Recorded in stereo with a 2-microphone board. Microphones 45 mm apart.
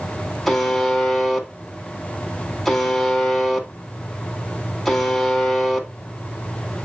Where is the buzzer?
Centre (ahead or behind), 1.7 m.